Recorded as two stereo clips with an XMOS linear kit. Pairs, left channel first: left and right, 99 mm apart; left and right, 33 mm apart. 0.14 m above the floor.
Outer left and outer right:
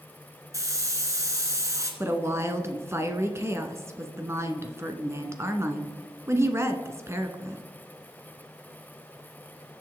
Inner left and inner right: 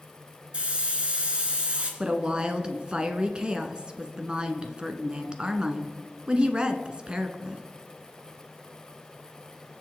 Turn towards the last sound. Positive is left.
turn(degrees=-25)  # may be behind; listen again after turning